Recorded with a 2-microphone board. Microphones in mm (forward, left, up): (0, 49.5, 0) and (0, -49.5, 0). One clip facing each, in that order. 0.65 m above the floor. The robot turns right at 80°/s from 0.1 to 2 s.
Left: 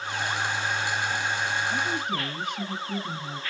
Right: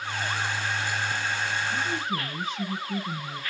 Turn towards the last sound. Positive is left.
turn(degrees=55)  # may be behind; listen again after turning